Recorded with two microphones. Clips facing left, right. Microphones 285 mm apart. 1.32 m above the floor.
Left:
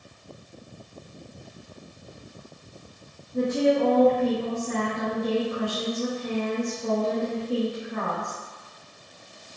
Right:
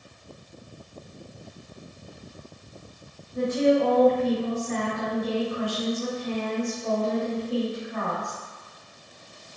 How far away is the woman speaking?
About 1.2 m.